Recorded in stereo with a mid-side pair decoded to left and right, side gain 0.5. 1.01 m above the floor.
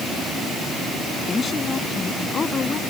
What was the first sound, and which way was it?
A woman speaking, 35° left.